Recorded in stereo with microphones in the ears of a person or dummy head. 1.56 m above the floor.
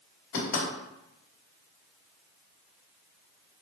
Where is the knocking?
65° left (ahead or behind), 2.5 m.